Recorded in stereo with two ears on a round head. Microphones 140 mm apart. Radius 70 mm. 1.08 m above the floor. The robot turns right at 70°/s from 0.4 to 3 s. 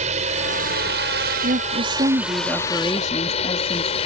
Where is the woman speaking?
85° right; by 4.0 s 25° left.